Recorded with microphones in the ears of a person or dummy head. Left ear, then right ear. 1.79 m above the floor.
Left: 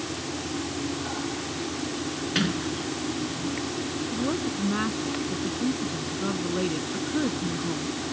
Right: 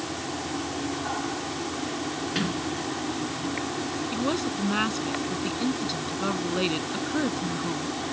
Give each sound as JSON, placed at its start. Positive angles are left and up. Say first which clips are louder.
{"t": 0.0, "sound": "a fan", "louder": "right 1 dB", "side_deg": -25}
{"t": 2.4, "sound": "a sliding door", "louder": "left 4 dB", "side_deg": 5}
{"t": 4.1, "sound": "a woman speaking", "louder": "right 1 dB", "side_deg": -80}